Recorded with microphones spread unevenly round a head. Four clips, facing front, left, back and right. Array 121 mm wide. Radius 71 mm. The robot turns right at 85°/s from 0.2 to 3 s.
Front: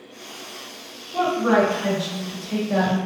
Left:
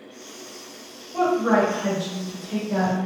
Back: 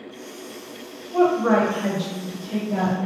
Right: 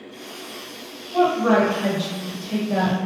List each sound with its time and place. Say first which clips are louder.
1.1 s a woman speaking: right 2 dB, back 1 dB; 170° right, 1.2 m; by 3.0 s 15° right, 1.2 m